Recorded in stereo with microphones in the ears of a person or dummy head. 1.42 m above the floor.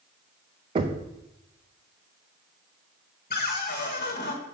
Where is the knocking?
25° right (ahead or behind), 0.6 m.